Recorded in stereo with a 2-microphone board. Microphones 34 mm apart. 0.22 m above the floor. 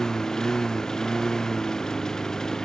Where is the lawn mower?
15° left (ahead or behind).